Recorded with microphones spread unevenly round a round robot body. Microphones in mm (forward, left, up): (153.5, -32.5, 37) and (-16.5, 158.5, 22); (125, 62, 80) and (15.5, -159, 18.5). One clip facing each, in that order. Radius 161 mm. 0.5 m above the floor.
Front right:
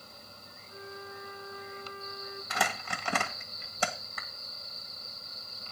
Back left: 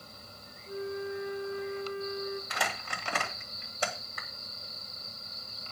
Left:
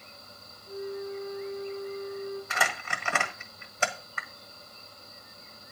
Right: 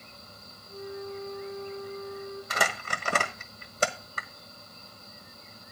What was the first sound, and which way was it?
A flute, 145° left.